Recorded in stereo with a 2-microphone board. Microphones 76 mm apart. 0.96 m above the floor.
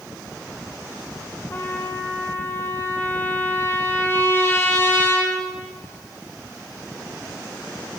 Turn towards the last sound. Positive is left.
turn(degrees=30)  # may be behind; listen again after turning